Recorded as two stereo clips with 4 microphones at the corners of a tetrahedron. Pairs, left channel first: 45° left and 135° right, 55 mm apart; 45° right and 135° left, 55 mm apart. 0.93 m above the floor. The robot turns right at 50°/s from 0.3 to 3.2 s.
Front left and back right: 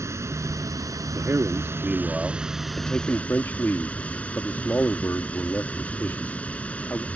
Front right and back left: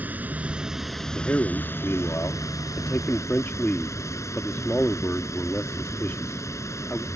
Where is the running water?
165° right; by 7.2 s 20° right.